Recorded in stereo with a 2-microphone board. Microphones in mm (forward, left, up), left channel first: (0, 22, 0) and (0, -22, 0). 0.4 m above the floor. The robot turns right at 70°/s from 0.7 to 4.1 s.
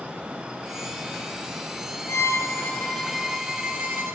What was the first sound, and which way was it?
A violin, 100° left.